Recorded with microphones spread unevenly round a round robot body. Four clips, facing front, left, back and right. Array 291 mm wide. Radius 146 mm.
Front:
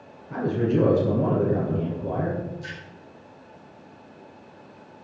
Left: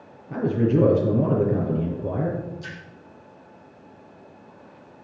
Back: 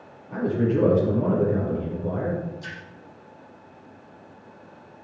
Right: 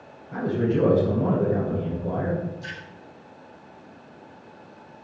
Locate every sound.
0.3 s a man speaking: 75° left, 6 m
2.6 s a splash: 130° left, 7 m